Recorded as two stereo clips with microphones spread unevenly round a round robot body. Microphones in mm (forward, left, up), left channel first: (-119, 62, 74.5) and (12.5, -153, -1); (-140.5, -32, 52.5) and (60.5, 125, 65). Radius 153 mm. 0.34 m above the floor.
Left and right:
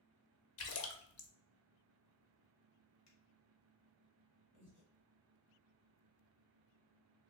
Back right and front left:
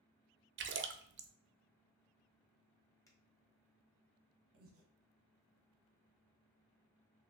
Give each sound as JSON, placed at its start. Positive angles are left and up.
{"t": 0.6, "sound": "a splash", "azimuth_deg": 80, "distance_m": 0.6}
{"t": 3.1, "sound": "a finger snap", "azimuth_deg": 140, "distance_m": 1.4}
{"t": 4.5, "sound": "breathing", "azimuth_deg": 75, "distance_m": 1.1}